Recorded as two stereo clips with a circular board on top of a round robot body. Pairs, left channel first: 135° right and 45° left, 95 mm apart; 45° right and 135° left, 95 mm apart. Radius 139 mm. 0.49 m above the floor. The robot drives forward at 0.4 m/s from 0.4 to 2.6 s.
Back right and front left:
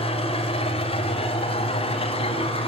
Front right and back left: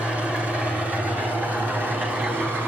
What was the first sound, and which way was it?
An engine running, 145° right.